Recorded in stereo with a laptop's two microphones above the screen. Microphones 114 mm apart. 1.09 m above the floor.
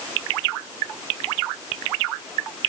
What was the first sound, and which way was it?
Only background noise.